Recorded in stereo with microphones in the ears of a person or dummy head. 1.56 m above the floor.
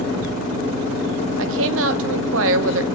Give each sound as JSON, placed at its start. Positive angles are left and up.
{"t": 1.4, "sound": "a woman speaking", "side_deg": -75, "distance_m": 1.4}